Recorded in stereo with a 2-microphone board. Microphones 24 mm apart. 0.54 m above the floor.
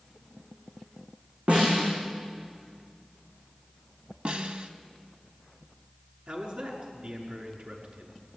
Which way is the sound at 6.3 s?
60° right (ahead or behind).